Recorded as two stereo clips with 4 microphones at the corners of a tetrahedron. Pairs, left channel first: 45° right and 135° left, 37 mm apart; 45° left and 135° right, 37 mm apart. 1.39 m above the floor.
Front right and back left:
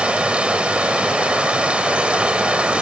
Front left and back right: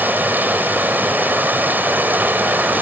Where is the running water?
165° right.